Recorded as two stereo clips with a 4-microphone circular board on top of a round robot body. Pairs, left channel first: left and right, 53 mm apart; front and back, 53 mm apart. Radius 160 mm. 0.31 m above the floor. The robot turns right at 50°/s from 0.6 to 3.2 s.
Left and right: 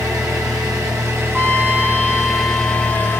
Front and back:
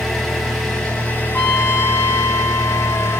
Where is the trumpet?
20° right, 1.6 m; by 3.2 s 70° left, 1.6 m.